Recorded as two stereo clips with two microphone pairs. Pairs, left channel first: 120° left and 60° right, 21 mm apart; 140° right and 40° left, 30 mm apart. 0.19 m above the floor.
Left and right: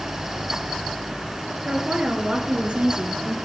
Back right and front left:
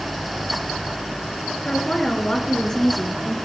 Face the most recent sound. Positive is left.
turn(degrees=-70)